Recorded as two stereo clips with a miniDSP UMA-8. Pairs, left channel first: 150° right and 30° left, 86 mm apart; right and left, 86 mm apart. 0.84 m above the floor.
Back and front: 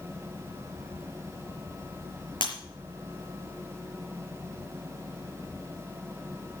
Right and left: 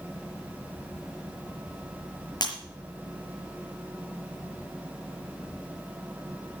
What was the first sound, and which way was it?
Breaking glass, 125° right.